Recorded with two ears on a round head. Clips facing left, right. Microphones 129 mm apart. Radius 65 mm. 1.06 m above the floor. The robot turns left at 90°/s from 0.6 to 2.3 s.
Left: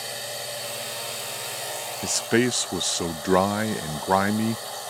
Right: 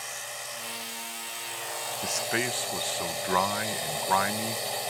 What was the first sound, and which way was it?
A drone, 135° left.